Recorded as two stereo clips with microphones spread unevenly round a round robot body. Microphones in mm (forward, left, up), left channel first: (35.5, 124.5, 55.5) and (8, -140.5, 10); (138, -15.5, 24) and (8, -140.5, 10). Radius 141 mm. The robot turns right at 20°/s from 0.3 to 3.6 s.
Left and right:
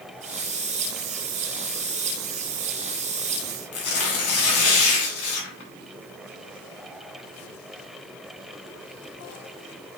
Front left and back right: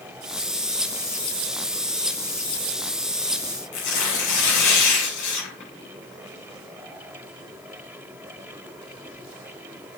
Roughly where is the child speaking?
No child speaking in this recording.